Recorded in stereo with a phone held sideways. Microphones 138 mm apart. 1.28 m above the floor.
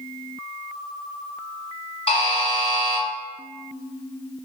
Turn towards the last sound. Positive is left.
turn(degrees=40)  # may be behind; listen again after turning